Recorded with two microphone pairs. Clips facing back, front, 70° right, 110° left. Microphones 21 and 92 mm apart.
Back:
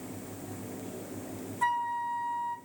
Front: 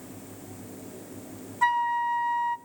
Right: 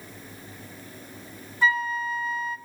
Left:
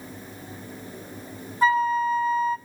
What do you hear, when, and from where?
1.6 s a flute: 60° left, 1.1 m